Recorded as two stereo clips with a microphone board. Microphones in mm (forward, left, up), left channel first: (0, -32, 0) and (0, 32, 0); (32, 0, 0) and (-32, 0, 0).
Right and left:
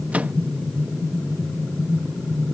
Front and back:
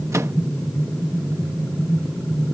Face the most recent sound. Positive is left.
turn(degrees=155)